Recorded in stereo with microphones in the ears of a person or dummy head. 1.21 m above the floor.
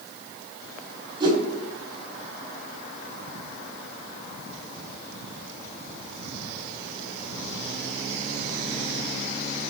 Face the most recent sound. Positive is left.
turn(degrees=-30)  # may be behind; listen again after turning